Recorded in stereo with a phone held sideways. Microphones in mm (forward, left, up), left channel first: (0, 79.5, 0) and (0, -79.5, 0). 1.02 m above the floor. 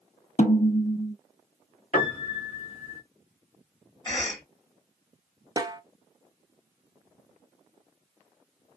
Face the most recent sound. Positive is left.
turn(degrees=-25)  # may be behind; listen again after turning